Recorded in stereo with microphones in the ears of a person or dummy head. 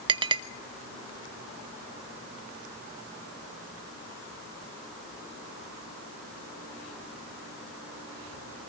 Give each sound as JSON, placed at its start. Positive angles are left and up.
{"t": 0.1, "sound": "a clink", "side_deg": -25, "distance_m": 1.0}